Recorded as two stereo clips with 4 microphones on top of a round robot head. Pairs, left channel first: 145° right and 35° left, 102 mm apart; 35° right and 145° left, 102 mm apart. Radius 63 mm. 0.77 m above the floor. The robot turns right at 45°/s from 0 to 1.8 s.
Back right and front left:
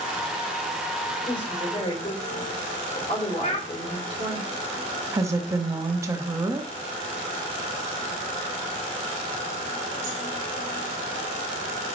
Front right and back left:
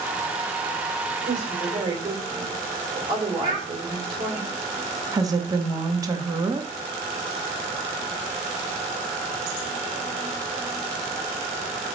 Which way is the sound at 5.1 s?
95° left.